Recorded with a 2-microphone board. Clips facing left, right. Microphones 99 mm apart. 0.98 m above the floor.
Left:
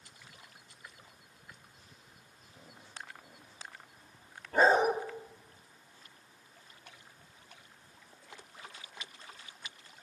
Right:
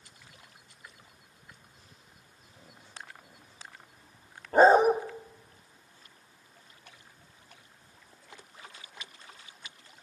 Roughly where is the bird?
No bird in this recording.